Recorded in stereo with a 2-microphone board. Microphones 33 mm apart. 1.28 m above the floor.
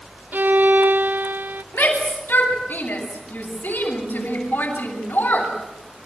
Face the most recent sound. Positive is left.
turn(degrees=85)